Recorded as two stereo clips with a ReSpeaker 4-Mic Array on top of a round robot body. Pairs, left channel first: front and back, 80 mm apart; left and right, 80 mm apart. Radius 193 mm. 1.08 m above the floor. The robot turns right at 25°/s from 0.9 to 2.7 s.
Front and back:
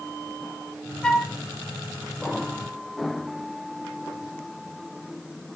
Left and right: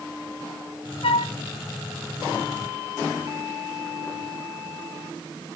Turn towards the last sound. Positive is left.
turn(degrees=120)